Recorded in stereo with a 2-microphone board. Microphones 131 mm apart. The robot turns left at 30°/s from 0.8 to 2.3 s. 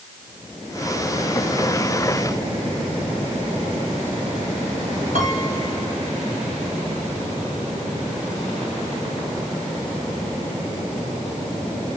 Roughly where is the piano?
Right.